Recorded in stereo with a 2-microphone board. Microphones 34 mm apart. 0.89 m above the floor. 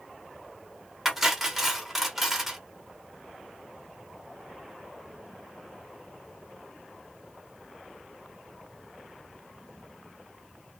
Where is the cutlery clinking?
10° right (ahead or behind), 0.8 m.